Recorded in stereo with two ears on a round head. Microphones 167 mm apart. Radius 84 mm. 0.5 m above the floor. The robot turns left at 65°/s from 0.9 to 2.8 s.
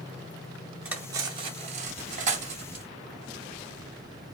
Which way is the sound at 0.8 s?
5° right (ahead or behind).